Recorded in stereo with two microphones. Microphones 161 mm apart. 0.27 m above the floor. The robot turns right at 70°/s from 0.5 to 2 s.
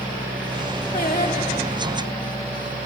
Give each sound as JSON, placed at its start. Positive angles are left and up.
{"t": 0.9, "sound": "singing", "azimuth_deg": 60, "distance_m": 3.0}